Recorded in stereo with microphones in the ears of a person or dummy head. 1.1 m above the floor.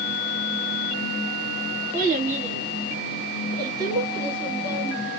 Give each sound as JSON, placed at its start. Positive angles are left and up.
{"t": 1.9, "sound": "a child speaking", "side_deg": -45, "distance_m": 1.5}